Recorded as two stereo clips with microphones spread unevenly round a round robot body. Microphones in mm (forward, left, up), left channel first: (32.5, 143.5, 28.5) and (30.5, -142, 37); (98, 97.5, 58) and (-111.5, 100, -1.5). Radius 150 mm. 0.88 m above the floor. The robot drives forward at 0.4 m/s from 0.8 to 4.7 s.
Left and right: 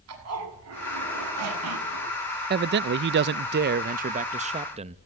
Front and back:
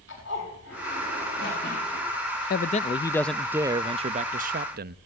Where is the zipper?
55° right, 6.5 m; by 2.1 s 60° right, 6.5 m.